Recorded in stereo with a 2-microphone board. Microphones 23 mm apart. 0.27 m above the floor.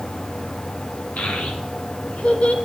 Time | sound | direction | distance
1.2 | a child speaking | 75° left (ahead or behind) | 2.5 m